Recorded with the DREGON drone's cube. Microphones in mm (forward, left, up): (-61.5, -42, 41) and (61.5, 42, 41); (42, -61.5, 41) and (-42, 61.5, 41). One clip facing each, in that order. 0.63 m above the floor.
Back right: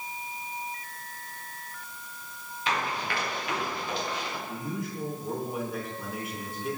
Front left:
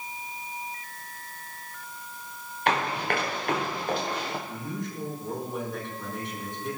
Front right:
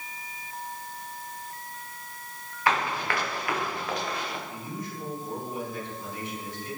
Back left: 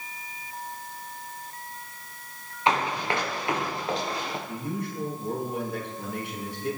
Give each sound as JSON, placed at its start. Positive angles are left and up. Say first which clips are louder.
{"t": 2.7, "sound": "running footsteps", "louder": "front left 4 dB, back left 2 dB", "azimuth_deg": 60, "distance_m": 4.5}
{"t": 4.5, "sound": "a man speaking", "louder": "even, back left 5 dB", "azimuth_deg": 130, "distance_m": 7.0}